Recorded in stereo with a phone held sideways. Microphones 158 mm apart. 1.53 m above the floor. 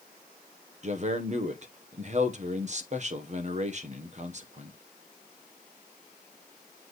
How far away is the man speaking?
About 1.3 m.